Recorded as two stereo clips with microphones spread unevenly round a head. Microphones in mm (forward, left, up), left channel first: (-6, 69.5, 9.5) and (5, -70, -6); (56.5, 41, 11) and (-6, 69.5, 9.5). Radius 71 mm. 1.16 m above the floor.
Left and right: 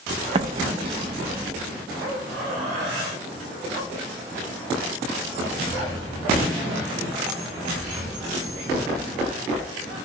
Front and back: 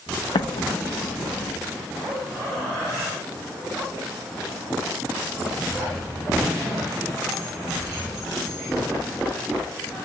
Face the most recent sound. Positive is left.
turn(degrees=-30)